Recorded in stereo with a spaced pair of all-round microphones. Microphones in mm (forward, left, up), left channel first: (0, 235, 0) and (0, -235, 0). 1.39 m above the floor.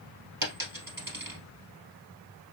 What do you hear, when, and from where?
0.4 s a dropped coin: 50° right (ahead or behind), 2 m